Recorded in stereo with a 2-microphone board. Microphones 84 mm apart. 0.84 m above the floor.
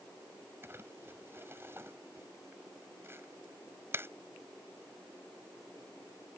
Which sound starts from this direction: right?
Crumpling, at 0.6 s.